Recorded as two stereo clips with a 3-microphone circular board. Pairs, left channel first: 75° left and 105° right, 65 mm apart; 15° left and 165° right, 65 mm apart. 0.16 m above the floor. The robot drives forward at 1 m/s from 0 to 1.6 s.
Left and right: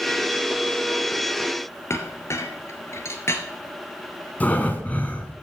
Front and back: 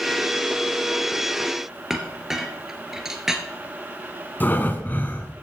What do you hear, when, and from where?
1.9 s a clink: 115° left, 1.4 m
4.4 s breathing: 35° left, 1.5 m